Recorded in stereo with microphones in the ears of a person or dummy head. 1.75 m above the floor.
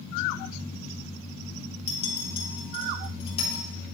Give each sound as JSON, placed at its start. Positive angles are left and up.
{"t": 1.9, "sound": "a clink", "side_deg": 35, "distance_m": 3.0}